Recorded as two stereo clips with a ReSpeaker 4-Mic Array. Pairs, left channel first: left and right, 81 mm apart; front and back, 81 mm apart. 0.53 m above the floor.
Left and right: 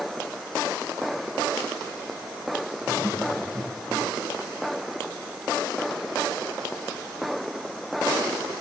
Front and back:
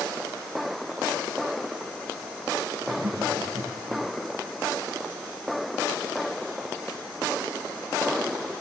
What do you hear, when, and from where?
2.8 s laughter: 170° left, 7 m